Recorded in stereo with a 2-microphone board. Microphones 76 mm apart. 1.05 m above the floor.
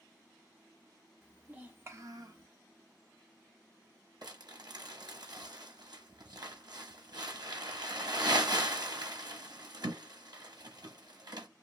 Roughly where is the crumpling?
Right.